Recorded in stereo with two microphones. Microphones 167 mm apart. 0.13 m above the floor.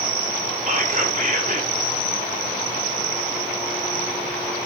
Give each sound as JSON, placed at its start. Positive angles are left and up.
{"t": 0.7, "sound": "whispering", "side_deg": -45, "distance_m": 2.0}